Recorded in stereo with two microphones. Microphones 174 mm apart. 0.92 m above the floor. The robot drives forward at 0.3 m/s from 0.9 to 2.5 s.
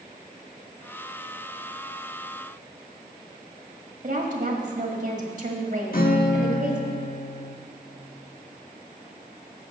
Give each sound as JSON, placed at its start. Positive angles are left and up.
{"t": 4.0, "sound": "a woman speaking", "side_deg": -50, "distance_m": 1.6}
{"t": 5.9, "sound": "a guitar", "side_deg": 65, "distance_m": 1.1}